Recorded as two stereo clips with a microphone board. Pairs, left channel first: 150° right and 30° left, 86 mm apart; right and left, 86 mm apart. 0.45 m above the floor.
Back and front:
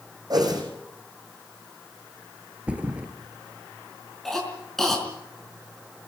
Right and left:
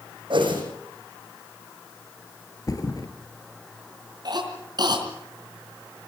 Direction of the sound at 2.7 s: 45° right.